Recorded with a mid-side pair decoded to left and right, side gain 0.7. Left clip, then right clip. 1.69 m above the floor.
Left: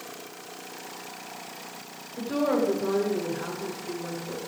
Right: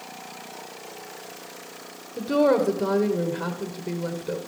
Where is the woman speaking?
50° right, 1.6 m.